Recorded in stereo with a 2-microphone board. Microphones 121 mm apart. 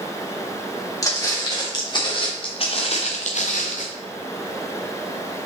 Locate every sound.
1.0 s footsteps: 30° left (ahead or behind), 3 m; by 3.9 s 80° left, 1.3 m